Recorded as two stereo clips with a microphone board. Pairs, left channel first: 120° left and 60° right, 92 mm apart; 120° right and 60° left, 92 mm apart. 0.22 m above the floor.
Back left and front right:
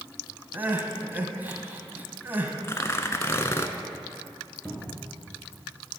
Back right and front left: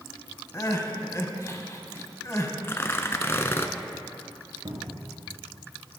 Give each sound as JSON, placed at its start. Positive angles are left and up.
{"t": 0.5, "sound": "crying", "azimuth_deg": -110, "distance_m": 1.0}
{"t": 2.6, "sound": "tearing paper", "azimuth_deg": 180, "distance_m": 0.6}
{"t": 4.7, "sound": "a cupboard door", "azimuth_deg": 50, "distance_m": 1.8}